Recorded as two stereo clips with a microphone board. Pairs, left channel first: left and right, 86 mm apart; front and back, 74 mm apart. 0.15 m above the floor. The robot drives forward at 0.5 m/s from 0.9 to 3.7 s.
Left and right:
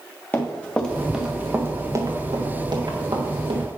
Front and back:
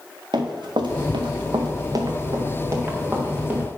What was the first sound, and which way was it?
Running footsteps, 160° left.